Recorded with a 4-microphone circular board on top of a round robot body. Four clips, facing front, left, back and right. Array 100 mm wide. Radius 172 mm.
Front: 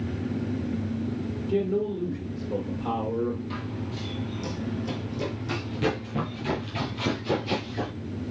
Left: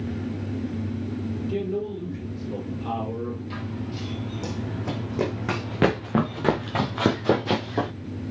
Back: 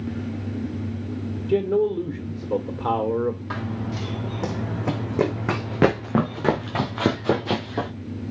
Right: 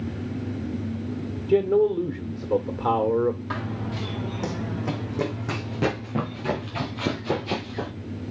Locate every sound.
1.5 s a man speaking: 130° right, 2.0 m
3.5 s running footsteps: 140° right, 1.9 m; by 7.9 s 130° left, 3 m